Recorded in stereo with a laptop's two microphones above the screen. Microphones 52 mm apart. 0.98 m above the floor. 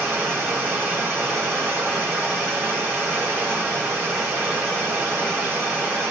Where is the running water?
20° right (ahead or behind), 1.7 m.